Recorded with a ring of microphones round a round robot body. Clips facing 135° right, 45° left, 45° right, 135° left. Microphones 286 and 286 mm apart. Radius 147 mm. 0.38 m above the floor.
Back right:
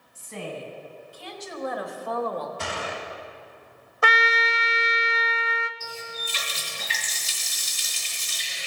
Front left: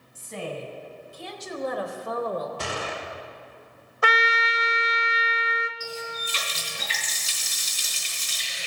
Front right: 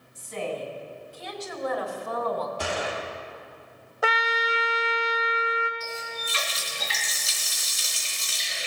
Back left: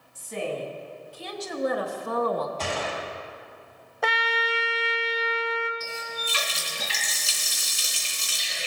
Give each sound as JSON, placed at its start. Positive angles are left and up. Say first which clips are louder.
{"t": 0.1, "sound": "a woman speaking", "louder": "front left 1 dB, back left 1 dB", "azimuth_deg": 75, "distance_m": 3.0}
{"t": 2.6, "sound": "a gunshot", "louder": "front left 1 dB, front right 1 dB", "azimuth_deg": 25, "distance_m": 1.7}
{"t": 4.0, "sound": "a trumpet", "louder": "back right 1 dB, front right 1 dB", "azimuth_deg": -130, "distance_m": 0.5}
{"t": 5.8, "sound": "a running tap", "louder": "front left 3 dB, even", "azimuth_deg": 75, "distance_m": 3.5}